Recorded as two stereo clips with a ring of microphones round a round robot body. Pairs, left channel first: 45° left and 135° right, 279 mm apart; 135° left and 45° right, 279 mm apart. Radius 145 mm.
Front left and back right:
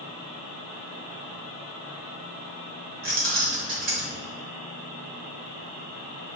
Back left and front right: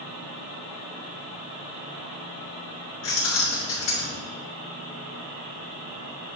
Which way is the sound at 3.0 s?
165° left.